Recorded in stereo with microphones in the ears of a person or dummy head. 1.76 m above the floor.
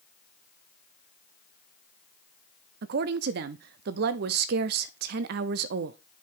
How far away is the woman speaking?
About 0.6 m.